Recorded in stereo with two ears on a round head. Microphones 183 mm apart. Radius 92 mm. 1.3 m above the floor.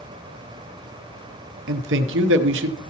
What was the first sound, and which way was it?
A man speaking, 65° right (ahead or behind).